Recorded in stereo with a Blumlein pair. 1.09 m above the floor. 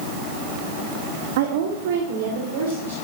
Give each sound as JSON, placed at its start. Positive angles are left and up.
{"t": 1.4, "sound": "a woman speaking", "azimuth_deg": -55, "distance_m": 1.3}